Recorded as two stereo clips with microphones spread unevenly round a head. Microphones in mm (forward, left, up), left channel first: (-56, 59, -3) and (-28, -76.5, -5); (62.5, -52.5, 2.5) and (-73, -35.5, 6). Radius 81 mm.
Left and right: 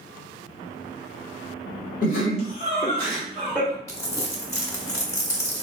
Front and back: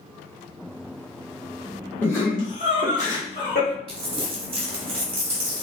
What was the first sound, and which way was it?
Laughter, 70° left.